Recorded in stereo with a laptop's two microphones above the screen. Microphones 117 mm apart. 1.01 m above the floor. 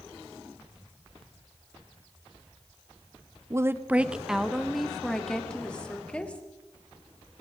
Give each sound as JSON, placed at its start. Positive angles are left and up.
{"t": 3.5, "sound": "a woman speaking", "side_deg": -25, "distance_m": 0.6}